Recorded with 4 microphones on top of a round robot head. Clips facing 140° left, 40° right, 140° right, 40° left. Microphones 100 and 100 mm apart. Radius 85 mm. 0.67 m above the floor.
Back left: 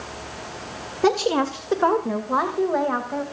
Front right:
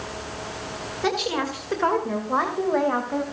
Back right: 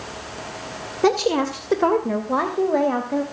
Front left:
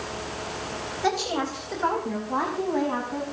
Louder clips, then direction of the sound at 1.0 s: Back left 6 dB, back right 8 dB; 170° right.